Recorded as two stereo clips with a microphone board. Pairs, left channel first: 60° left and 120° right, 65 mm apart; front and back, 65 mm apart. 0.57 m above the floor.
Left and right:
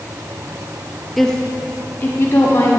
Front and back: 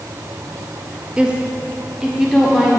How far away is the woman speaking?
About 0.6 m.